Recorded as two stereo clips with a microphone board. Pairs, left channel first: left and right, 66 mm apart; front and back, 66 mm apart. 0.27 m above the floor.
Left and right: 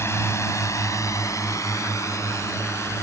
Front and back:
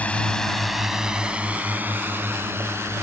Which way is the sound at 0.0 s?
60° left.